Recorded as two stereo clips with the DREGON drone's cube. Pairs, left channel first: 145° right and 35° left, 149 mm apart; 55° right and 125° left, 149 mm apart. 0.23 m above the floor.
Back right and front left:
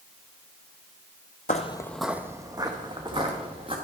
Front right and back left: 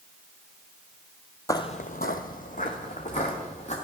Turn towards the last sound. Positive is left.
turn(degrees=-15)